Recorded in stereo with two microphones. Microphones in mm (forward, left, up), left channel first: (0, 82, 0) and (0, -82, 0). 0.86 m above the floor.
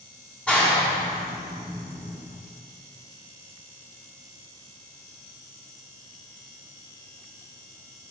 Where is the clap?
5° left (ahead or behind), 5 m.